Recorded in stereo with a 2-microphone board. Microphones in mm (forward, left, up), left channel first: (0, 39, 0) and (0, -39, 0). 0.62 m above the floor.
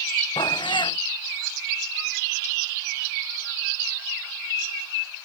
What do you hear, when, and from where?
0.4 s a cat meowing: 90° left